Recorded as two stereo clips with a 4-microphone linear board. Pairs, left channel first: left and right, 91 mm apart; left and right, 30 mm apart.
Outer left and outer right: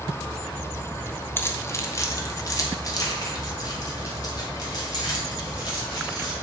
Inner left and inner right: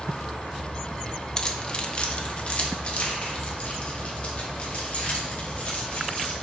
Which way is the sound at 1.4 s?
25° left (ahead or behind).